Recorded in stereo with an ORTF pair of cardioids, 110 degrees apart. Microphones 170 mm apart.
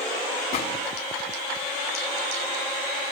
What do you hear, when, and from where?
0.5 s a gunshot: 65° left, 4.5 m